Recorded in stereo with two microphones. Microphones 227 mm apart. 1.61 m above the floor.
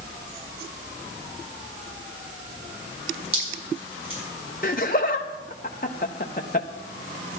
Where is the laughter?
40° left (ahead or behind), 0.6 m.